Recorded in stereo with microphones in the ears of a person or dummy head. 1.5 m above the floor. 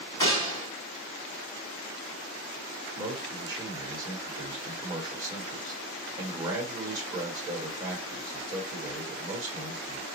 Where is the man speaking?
20° right (ahead or behind), 1.5 m.